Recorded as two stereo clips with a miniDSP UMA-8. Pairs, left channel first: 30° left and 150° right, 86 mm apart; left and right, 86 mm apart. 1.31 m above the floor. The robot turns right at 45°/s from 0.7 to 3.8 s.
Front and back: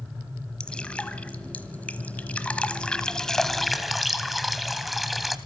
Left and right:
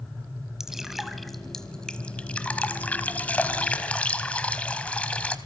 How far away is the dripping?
About 1.2 m.